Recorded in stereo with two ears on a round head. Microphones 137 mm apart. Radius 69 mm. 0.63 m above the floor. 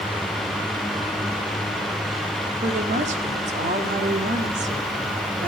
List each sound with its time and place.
2.6 s a woman speaking: 50° right (ahead or behind), 1.8 m